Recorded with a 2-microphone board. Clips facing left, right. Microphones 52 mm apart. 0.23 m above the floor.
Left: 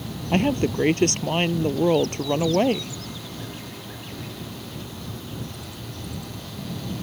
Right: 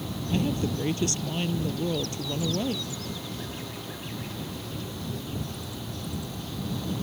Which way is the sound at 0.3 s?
55° left (ahead or behind).